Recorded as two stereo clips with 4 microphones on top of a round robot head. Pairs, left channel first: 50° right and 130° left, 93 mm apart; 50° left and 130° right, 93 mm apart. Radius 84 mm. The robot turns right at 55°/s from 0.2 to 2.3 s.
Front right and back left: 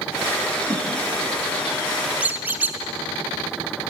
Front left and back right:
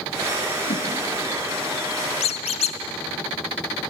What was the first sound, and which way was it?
A whoosh, 60° left.